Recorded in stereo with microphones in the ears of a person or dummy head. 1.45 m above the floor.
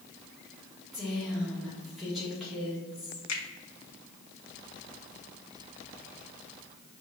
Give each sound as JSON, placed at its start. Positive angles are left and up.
{"t": 0.9, "sound": "a woman speaking", "side_deg": -5, "distance_m": 2.0}
{"t": 3.3, "sound": "a finger snap", "side_deg": 80, "distance_m": 1.5}